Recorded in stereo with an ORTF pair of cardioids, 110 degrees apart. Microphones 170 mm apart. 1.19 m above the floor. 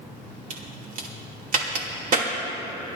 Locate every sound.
0.5 s a crack: 55° right, 2.5 m